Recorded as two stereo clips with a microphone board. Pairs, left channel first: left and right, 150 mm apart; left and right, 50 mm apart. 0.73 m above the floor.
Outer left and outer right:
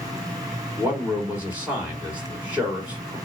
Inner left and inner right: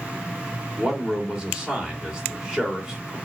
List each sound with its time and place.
0.8 s a man speaking: 10° right (ahead or behind), 2 m